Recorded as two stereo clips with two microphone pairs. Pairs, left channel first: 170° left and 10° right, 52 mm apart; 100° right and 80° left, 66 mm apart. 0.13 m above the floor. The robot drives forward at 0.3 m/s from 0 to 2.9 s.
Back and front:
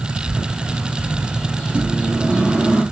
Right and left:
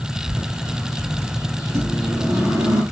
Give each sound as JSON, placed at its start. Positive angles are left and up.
{"t": 0.3, "sound": "a bird", "azimuth_deg": 75, "distance_m": 1.6}
{"t": 1.7, "sound": "a microwave", "azimuth_deg": 50, "distance_m": 2.5}